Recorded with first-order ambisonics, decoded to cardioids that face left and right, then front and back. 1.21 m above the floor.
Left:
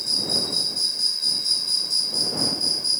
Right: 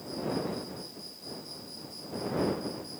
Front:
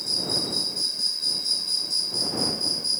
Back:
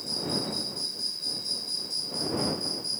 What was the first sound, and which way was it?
An insect, 70° left.